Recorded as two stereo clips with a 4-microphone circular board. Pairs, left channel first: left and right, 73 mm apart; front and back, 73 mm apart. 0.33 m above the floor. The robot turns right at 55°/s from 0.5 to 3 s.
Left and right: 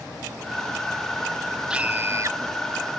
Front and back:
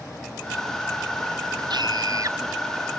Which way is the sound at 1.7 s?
170° right.